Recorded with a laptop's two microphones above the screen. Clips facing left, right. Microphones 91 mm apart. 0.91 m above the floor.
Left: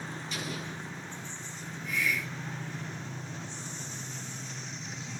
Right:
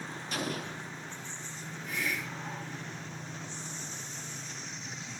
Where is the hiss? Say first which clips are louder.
Left 3 dB; 40° right (ahead or behind), 3.5 m.